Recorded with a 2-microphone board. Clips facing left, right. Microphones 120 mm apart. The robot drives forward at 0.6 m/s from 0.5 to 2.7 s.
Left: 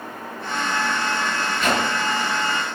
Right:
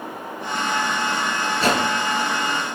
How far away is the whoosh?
About 5 m.